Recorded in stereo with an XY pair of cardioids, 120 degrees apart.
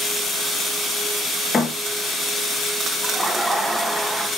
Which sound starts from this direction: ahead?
Laughter, at 3.0 s.